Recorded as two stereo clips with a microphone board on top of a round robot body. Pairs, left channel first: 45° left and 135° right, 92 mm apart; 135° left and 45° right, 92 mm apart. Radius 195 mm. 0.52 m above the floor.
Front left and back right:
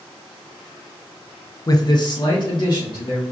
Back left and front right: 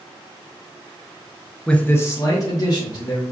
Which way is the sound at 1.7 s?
55° left.